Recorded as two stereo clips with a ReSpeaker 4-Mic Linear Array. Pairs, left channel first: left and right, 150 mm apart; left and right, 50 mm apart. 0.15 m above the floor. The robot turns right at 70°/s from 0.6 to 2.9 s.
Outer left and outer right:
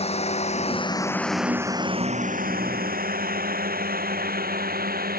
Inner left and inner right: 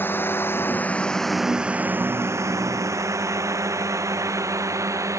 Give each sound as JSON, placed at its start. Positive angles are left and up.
{"t": 0.0, "sound": "a drone", "side_deg": 45}